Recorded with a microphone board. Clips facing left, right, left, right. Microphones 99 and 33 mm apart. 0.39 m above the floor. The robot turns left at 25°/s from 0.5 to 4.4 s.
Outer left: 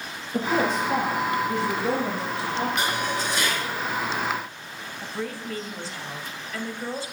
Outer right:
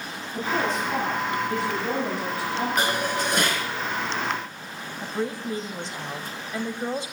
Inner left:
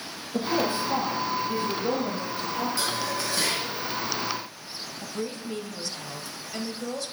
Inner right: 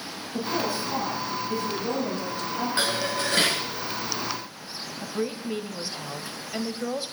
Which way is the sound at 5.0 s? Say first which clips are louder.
Outer right 4 dB, inner right 4 dB; 20° right (ahead or behind).